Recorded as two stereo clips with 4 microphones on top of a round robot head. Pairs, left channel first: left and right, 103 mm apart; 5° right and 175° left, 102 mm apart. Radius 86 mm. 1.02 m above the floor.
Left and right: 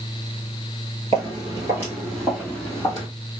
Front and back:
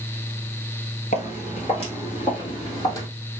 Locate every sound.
1.1 s footsteps: 30° right, 1.5 m; by 3.1 s 35° left, 1.2 m